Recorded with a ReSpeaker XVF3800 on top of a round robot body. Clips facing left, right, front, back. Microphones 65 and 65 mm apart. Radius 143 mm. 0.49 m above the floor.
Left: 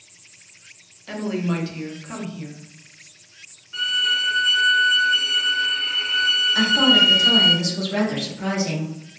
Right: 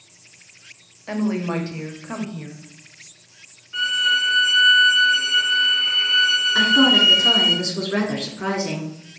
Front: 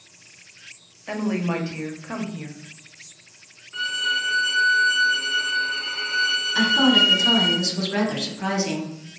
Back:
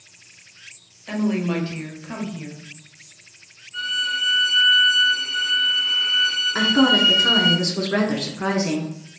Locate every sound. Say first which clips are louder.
1.1 s a woman speaking: right 2 dB, back 2 dB; 60° right, 1.1 m
3.7 s a violin: right 3 dB, front 1 dB; 5° right, 0.8 m
6.5 s a woman speaking: right 2 dB, back 1 dB; 135° right, 1.6 m